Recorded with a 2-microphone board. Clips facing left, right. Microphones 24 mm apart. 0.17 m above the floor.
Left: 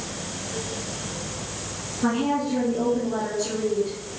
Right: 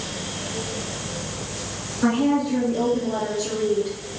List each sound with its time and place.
2.0 s a woman speaking: 65° right (ahead or behind), 2.5 m; by 4.0 s 55° right (ahead or behind), 4 m